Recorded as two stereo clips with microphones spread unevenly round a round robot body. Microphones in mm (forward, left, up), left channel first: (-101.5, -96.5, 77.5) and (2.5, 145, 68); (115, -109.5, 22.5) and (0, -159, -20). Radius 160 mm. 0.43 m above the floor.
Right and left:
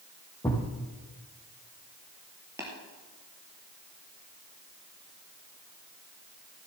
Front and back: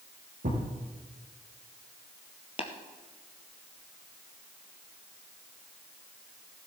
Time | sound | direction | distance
0.4 | a thud | 170° left | 3.5 m
2.6 | tapping | 15° right | 2 m